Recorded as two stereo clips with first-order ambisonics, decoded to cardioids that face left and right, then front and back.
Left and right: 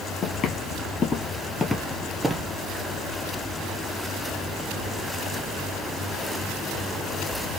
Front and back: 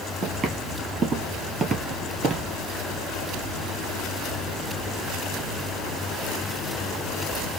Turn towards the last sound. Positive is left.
turn(degrees=-150)